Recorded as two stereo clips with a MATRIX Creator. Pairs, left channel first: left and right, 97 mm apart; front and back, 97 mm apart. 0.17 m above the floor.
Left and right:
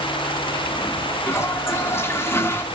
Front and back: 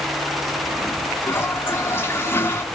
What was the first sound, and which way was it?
A toilet flushing, 45° left.